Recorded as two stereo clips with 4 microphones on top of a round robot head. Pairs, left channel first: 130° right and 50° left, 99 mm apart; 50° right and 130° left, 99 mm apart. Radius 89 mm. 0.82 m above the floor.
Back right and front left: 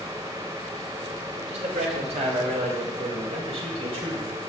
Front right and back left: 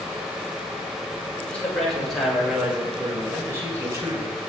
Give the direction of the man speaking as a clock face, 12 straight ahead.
11 o'clock.